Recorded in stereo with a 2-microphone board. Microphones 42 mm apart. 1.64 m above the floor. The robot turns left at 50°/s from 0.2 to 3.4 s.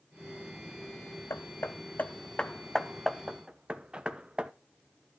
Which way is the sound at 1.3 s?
70° left (ahead or behind).